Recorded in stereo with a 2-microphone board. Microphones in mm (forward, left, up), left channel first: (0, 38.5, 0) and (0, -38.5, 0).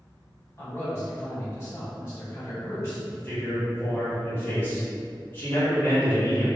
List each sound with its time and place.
0.6 s a man speaking: 35° left (ahead or behind), 1.4 m
3.1 s a man speaking: 25° left (ahead or behind), 1.2 m